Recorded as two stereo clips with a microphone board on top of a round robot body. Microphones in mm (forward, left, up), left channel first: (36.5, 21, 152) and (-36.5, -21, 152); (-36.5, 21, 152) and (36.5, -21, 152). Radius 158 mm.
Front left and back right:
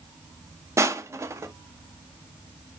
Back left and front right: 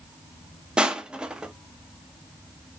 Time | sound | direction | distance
0.8 | crushing | 105° right | 0.7 m